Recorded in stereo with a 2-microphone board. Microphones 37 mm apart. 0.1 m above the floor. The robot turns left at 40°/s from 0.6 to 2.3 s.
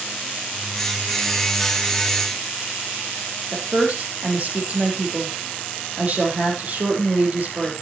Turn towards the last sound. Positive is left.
turn(degrees=-40)  # may be behind; listen again after turning